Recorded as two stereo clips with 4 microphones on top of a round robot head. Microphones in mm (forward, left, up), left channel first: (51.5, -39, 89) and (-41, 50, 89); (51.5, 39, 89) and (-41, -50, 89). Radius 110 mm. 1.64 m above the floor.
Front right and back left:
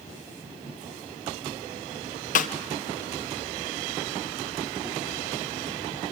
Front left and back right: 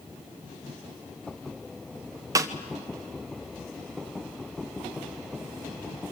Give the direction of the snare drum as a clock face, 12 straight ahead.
2 o'clock.